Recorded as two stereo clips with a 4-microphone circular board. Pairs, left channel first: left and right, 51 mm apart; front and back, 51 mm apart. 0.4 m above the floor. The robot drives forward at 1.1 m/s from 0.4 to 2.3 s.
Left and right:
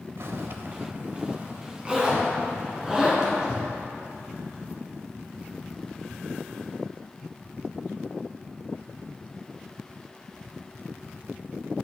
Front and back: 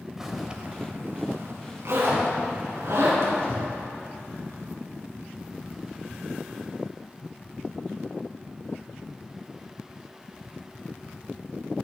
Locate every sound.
0.2 s a zipper: 100° right, 0.7 m; by 3.7 s 165° right, 2.5 m